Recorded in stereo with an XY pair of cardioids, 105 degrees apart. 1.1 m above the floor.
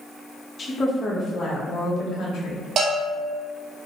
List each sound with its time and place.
0.6 s a woman speaking: 25° left, 0.9 m; by 2.7 s 65° left, 1.6 m
2.8 s a bell: 55° right, 1.2 m